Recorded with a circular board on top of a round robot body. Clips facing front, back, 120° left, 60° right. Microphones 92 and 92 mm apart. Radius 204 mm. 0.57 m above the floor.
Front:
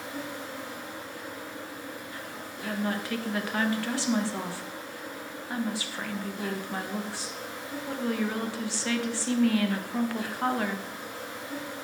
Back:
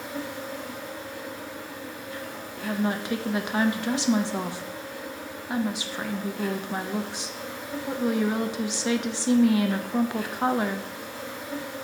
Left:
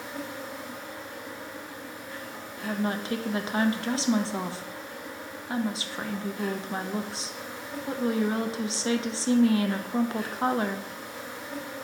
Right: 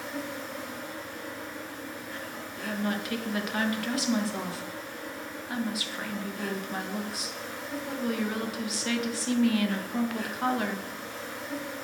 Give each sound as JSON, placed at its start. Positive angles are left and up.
{"t": 0.0, "sound": "an insect", "azimuth_deg": -170, "distance_m": 1.4}
{"t": 2.6, "sound": "a woman speaking", "azimuth_deg": 135, "distance_m": 0.6}